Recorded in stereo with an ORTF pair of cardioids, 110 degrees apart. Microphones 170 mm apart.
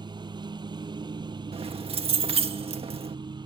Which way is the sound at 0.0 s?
25° right.